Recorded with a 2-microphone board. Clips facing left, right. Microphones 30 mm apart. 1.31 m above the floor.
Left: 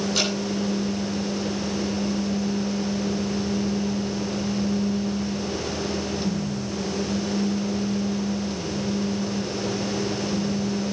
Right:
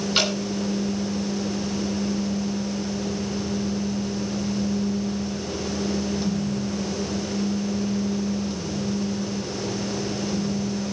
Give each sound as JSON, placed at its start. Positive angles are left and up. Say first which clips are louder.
{"t": 0.1, "sound": "dripping", "louder": "right 4 dB", "side_deg": -35, "distance_m": 9.5}